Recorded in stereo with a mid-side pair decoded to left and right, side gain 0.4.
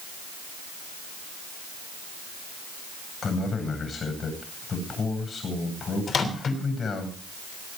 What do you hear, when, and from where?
3.2 s a man speaking: 45° left, 9.5 m
6.1 s a microwave: 50° left, 3 m